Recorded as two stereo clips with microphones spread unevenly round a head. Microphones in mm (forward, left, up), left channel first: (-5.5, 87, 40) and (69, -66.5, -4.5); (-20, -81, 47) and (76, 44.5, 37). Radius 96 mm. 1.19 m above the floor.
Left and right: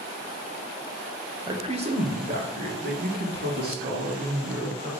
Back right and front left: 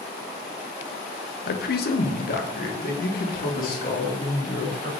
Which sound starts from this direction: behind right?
A man speaking, at 1.5 s.